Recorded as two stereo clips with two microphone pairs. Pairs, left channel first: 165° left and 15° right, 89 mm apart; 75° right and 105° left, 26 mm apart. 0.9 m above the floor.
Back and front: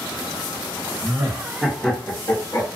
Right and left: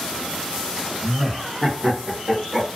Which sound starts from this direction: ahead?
Laughter, at 1.0 s.